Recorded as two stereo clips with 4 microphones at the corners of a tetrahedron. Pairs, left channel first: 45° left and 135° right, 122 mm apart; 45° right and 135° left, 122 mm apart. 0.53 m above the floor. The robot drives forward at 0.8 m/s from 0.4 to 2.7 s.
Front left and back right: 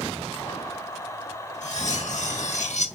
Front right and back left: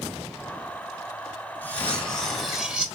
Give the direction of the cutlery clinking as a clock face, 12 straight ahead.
11 o'clock.